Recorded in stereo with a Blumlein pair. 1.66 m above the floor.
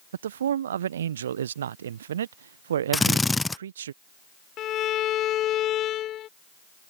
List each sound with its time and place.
0.1 s a man speaking: 65° right
2.9 s a drill: 10° left
4.6 s a violin: 30° left